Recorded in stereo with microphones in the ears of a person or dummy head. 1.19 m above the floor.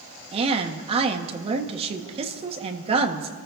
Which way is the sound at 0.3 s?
35° right (ahead or behind).